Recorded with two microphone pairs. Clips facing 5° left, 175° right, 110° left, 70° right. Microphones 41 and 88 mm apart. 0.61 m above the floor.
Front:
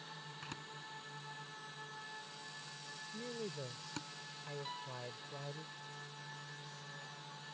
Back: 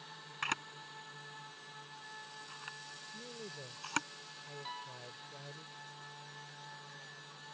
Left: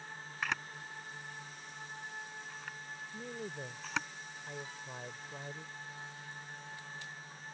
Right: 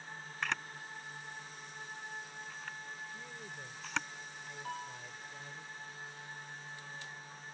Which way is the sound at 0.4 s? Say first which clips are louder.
Back 14 dB, even; 160° right.